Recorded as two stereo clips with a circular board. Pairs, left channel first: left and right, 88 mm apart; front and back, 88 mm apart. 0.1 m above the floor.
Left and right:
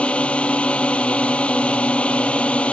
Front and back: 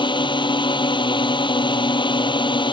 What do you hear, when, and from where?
0.0 s a drone: 15° left